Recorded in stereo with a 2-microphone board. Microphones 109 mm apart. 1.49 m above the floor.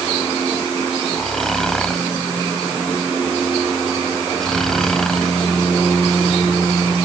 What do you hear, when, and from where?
1.2 s snoring: 5° left (ahead or behind)